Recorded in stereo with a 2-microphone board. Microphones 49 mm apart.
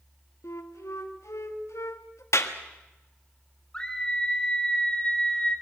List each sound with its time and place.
0.4 s a flute: 75° left (ahead or behind), 1.5 m
2.3 s a clap: 70° left (ahead or behind), 1.3 m
3.7 s a scream: 15° left (ahead or behind), 4.5 m